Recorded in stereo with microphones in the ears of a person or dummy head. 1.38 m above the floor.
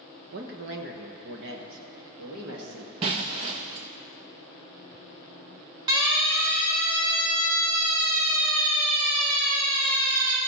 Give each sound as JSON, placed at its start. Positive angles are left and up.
{"t": 0.3, "sound": "a man speaking", "side_deg": -55, "distance_m": 1.0}
{"t": 3.0, "sound": "breaking glass", "side_deg": -30, "distance_m": 0.6}
{"t": 5.9, "sound": "a siren", "side_deg": -25, "distance_m": 3.0}